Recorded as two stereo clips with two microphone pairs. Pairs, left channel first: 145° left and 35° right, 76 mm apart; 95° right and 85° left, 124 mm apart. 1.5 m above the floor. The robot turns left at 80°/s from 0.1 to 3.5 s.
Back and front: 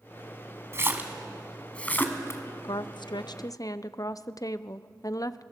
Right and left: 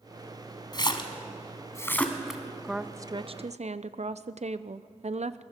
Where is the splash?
65° right, 1.8 m; by 2.4 s 160° left, 1.8 m.